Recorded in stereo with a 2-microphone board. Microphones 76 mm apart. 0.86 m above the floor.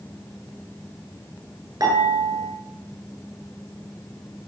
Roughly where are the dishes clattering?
Right.